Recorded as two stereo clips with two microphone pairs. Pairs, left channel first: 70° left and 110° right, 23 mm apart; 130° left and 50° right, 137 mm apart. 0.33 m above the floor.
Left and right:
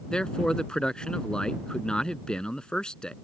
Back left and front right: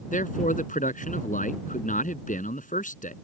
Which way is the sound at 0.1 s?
120° left.